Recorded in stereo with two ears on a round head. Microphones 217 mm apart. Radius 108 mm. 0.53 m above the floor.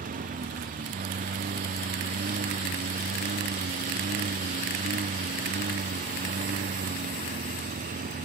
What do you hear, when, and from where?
0.0 s a lawn mower: 35° right (ahead or behind)